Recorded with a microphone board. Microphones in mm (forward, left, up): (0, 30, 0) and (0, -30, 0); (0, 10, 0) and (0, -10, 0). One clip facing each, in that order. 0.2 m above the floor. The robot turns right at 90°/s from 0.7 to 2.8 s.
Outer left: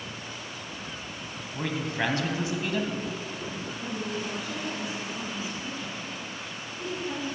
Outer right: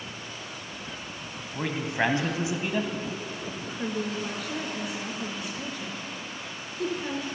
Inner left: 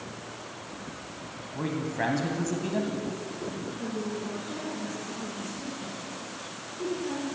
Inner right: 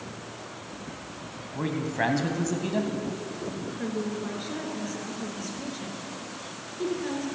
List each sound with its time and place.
1.6 s a man speaking: 10° right (ahead or behind), 1.1 m; by 2.9 s 15° right (ahead or behind), 1.1 m
3.8 s a woman speaking: 70° right (ahead or behind), 3.5 m